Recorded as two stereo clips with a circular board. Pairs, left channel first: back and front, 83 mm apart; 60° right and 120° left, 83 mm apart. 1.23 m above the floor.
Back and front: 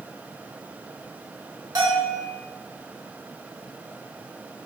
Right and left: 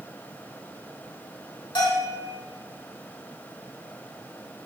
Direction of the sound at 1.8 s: 40° right.